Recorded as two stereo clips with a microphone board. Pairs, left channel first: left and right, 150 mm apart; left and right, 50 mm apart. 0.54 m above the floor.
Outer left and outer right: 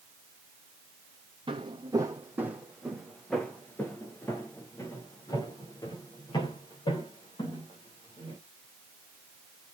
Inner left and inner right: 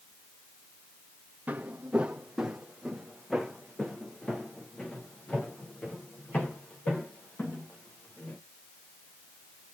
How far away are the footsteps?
About 1.4 m.